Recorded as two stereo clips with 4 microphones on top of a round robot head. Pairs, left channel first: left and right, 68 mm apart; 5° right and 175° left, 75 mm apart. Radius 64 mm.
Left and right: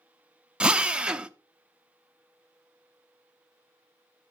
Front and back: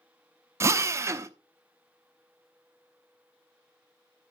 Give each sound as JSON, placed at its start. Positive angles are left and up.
{"t": 0.6, "sound": "a drill", "azimuth_deg": -160, "distance_m": 0.6}